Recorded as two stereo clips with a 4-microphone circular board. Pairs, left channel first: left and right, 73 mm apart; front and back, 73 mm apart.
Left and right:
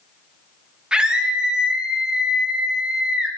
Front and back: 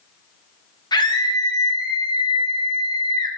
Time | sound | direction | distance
0.9 | a scream | 10° right | 1.6 m